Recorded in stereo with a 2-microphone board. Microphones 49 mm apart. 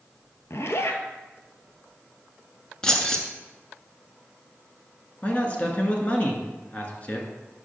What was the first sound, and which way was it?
A zipper, 65° left (ahead or behind).